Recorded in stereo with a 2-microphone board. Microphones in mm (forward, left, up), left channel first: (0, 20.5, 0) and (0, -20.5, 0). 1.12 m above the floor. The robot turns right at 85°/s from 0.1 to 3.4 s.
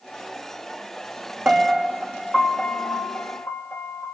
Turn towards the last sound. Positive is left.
turn(degrees=105)